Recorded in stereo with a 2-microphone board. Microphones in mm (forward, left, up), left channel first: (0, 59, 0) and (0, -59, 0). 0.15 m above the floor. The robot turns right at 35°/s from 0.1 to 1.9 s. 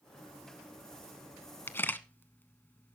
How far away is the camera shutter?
About 0.7 m.